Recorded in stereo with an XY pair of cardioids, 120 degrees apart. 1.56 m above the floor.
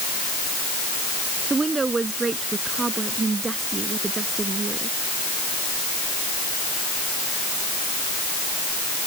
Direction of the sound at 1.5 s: 25° right.